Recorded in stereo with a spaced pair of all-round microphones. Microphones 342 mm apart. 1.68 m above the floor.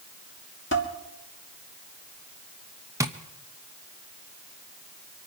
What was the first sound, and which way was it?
Dishes clattering, 35° left (ahead or behind).